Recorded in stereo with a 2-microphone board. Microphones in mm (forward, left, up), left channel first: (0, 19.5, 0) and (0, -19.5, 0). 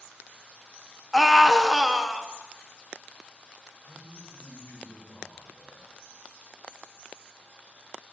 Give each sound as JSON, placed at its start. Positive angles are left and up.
{"t": 1.1, "sound": "a scream", "side_deg": 5, "distance_m": 0.7}
{"t": 3.8, "sound": "a man speaking", "side_deg": 70, "distance_m": 2.5}